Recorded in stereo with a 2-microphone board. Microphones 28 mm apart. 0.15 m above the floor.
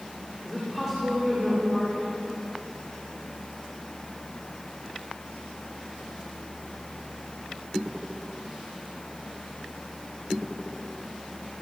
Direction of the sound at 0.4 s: 5° right (ahead or behind).